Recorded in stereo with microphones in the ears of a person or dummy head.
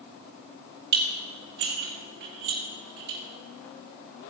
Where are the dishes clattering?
50° right (ahead or behind), 1.7 m.